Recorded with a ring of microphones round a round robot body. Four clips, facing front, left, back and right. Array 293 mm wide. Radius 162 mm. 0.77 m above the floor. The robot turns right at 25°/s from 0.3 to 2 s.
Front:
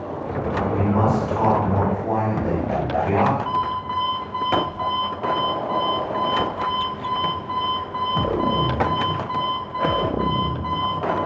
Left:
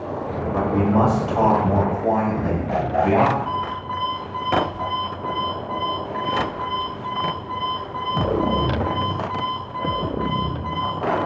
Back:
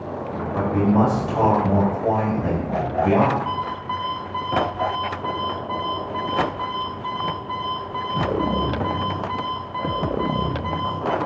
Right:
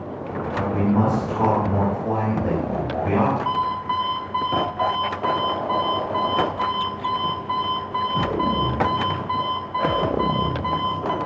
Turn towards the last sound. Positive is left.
turn(degrees=-85)